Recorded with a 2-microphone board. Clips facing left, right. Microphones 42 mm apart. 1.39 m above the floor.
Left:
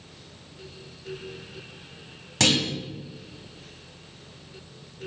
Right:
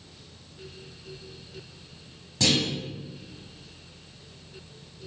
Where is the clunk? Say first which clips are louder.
Left 2 dB; 85° left, 5.5 m.